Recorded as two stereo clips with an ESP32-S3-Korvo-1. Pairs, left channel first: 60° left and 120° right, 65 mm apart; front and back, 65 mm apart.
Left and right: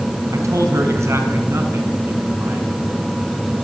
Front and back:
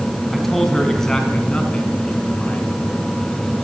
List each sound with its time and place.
0.3 s a man speaking: 85° right, 4.5 m; by 2.7 s 65° right, 6 m